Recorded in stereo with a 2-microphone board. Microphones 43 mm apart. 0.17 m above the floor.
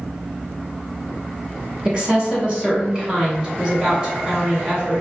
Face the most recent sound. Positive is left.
turn(degrees=-20)  # may be behind; listen again after turning